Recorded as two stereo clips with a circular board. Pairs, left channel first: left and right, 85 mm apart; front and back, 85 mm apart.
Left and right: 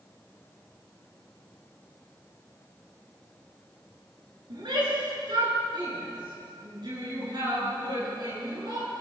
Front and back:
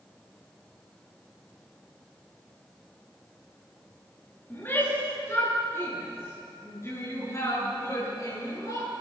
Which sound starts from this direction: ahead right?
A shout, at 4.5 s.